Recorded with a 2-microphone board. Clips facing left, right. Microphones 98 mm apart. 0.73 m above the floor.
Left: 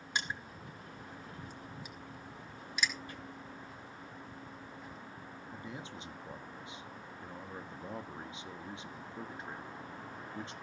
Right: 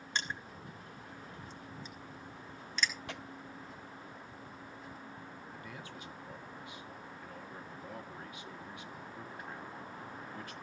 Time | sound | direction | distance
0.1 | crushing | 10° left (ahead or behind) | 3 m
3.1 | tearing paper | 90° right | 0.7 m
5.5 | a man speaking | 25° left (ahead or behind) | 1.4 m